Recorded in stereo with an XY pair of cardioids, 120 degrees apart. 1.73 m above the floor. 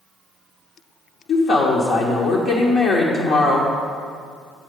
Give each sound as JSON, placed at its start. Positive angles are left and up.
{"t": 1.3, "sound": "a woman speaking", "azimuth_deg": 60, "distance_m": 1.1}